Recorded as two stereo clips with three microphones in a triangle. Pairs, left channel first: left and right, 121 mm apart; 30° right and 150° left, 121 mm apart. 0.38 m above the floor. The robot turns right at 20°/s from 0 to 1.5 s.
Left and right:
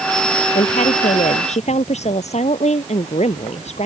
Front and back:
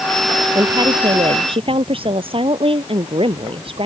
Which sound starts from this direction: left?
A woman speaking, at 0.6 s.